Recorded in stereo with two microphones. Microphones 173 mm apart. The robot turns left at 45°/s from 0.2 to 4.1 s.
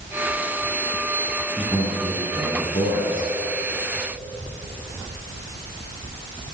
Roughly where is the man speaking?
Behind.